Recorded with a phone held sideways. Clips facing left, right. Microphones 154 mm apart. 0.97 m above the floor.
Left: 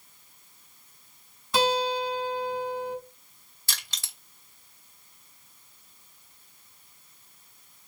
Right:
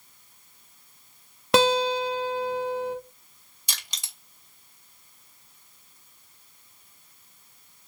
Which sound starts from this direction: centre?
Crushing, at 3.7 s.